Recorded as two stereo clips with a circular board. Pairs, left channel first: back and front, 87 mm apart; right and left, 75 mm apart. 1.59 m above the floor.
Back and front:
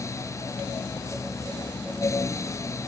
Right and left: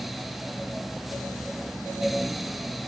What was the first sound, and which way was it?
Only background noise.